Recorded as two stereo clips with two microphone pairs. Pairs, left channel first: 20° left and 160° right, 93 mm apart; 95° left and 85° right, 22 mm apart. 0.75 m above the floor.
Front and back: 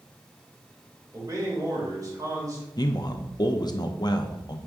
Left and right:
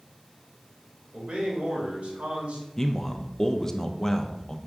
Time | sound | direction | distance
1.1 | a man speaking | 110° right | 3 m
2.8 | a man speaking | 30° left | 0.7 m